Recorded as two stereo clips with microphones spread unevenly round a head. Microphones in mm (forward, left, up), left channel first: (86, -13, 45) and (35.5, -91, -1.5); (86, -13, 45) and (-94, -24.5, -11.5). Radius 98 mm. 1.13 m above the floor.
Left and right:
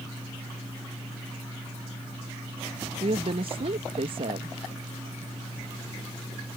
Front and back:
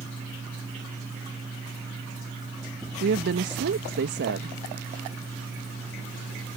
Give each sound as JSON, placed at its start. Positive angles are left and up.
{"t": 3.0, "sound": "a woman speaking", "azimuth_deg": -150}